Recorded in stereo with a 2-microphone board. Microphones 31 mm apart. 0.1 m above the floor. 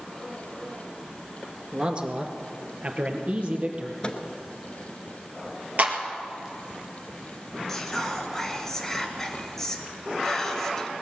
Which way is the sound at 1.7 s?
30° right (ahead or behind).